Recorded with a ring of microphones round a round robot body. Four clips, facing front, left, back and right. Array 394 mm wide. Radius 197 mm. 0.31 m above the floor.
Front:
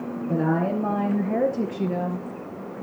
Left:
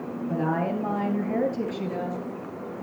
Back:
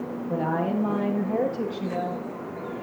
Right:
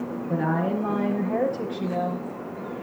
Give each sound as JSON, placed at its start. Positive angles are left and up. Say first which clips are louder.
{"t": 0.3, "sound": "a woman speaking", "louder": "right 1 dB, front 3 dB", "azimuth_deg": 15, "distance_m": 6.0}